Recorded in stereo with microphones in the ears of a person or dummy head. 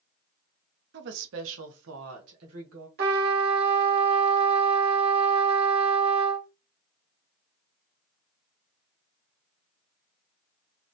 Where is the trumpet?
55° right (ahead or behind), 1.2 m.